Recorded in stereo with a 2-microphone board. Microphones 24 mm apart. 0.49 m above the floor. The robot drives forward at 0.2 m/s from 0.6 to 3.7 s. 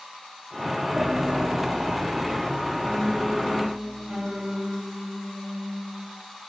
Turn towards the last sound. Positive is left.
turn(degrees=-30)  # may be behind; listen again after turning